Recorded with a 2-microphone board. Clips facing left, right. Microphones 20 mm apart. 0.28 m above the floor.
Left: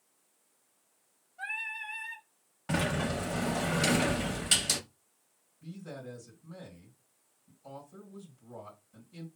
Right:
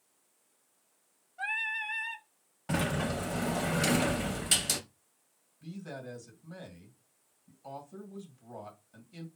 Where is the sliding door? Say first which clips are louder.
Left 1 dB; 15° left (ahead or behind), 0.5 m.